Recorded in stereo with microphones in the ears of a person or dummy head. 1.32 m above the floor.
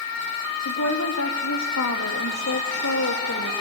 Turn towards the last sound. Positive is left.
turn(degrees=75)  # may be behind; listen again after turning